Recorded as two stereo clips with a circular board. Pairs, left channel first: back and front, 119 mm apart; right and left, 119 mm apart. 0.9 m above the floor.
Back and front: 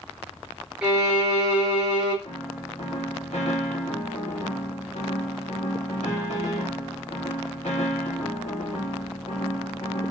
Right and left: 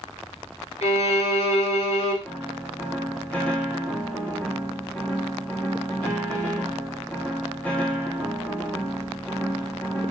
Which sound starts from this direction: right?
A violin, at 0.8 s.